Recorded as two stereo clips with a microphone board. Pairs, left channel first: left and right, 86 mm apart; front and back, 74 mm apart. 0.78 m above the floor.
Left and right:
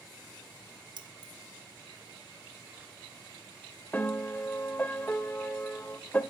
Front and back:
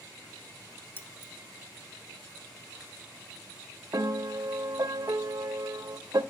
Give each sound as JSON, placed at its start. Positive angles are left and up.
{"t": 1.0, "sound": "keys jangling", "azimuth_deg": -65, "distance_m": 1.2}
{"t": 3.9, "sound": "a piano", "azimuth_deg": 155, "distance_m": 0.9}